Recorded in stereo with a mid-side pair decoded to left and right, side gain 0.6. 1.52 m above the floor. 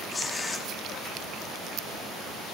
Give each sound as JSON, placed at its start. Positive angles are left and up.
{"t": 0.1, "sound": "tearing paper", "azimuth_deg": 25, "distance_m": 3.0}